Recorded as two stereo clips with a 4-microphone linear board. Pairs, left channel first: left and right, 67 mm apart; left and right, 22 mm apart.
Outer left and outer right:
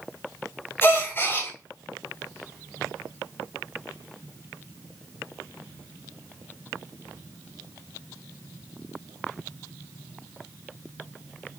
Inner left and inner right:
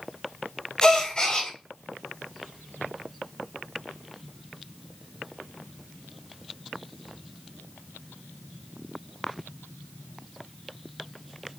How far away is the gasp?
About 2.5 m.